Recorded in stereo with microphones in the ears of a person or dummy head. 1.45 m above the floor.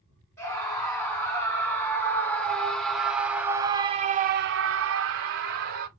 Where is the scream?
15° left (ahead or behind), 2 m; by 5.9 s 60° right (ahead or behind), 0.9 m.